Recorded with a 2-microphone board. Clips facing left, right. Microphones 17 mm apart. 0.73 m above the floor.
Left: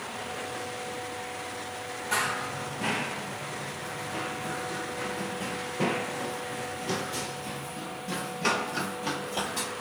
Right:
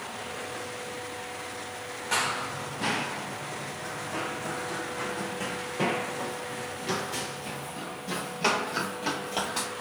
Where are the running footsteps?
25° right (ahead or behind), 0.9 m; by 9.7 s 65° right (ahead or behind), 5.5 m.